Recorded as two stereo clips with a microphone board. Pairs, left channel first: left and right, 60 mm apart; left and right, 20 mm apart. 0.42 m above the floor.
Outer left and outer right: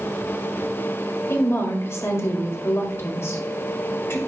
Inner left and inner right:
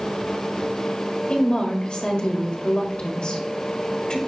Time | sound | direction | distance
1.3 | a woman speaking | 50° left (ahead or behind) | 1.8 m